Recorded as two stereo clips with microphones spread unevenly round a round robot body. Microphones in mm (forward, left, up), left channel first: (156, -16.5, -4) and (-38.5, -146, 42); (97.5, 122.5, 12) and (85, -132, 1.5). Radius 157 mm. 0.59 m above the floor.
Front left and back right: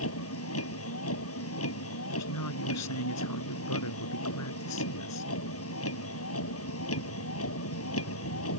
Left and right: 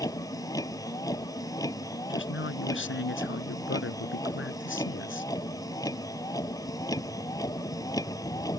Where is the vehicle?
10° left.